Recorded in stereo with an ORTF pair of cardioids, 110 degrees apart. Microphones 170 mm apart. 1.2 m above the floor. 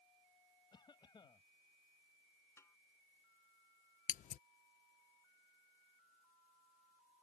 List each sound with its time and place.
0.7 s a cough: 25° left
2.6 s a snare drum: 15° left
4.1 s scissors: 55° left